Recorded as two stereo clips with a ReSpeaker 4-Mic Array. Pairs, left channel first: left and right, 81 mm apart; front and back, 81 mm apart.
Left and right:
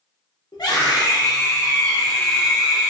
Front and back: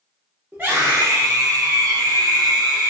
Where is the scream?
110° left, 1.2 m; by 2.9 s 160° right, 1.0 m.